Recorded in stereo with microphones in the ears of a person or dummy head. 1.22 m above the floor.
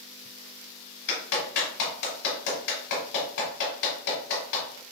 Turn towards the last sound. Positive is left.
turn(degrees=65)  # may be behind; listen again after turning